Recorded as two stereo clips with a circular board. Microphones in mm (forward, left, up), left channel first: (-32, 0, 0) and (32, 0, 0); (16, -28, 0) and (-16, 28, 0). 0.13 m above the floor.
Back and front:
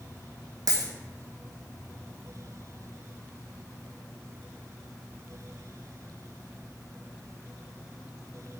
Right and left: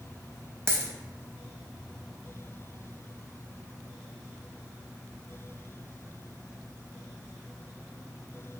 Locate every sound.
0.7 s a dropped coin: 15° left, 0.7 m